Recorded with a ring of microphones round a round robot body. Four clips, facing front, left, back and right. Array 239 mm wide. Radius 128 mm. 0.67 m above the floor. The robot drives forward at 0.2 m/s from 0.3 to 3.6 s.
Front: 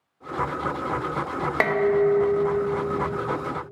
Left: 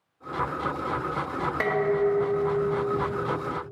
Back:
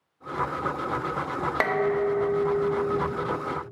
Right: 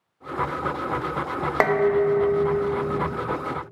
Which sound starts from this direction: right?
Dishes clattering, at 1.6 s.